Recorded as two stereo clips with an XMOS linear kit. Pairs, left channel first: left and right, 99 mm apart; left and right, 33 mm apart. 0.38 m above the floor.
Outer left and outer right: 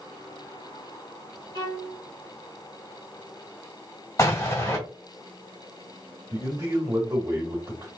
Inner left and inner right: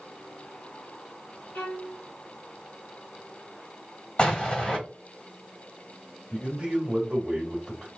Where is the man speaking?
30° right (ahead or behind), 1.6 m.